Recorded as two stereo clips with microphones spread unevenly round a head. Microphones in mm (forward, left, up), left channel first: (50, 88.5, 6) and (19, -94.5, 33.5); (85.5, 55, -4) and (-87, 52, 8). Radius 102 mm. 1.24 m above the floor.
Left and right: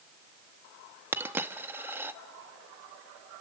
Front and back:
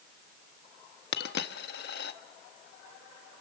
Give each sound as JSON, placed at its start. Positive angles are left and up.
{"t": 1.1, "sound": "a dropped coin", "azimuth_deg": -25, "distance_m": 0.9}